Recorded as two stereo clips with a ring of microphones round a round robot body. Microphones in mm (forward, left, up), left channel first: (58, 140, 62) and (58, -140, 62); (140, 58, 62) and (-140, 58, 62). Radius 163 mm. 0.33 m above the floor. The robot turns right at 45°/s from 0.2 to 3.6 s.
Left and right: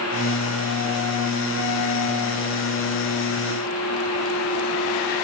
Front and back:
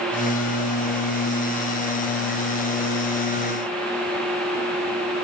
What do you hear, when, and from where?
Only background noise.